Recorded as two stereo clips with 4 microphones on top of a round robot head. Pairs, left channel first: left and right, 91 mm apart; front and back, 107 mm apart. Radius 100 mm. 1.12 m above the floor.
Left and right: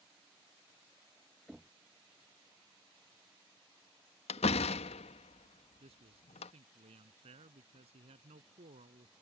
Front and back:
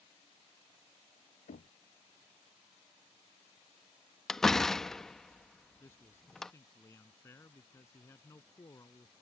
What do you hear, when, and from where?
1.5 s knocking: 5° right
4.3 s a door slam: 85° left
5.8 s a man speaking: 75° right